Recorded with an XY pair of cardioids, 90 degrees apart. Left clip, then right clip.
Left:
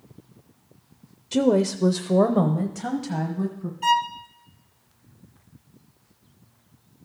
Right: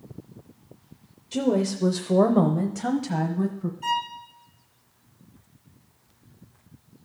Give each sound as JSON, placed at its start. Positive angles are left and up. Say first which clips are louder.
{"t": 1.3, "sound": "a woman speaking", "louder": "left 4 dB", "azimuth_deg": 50, "distance_m": 0.6}
{"t": 3.8, "sound": "a violin", "louder": "left 6 dB", "azimuth_deg": 55, "distance_m": 0.5}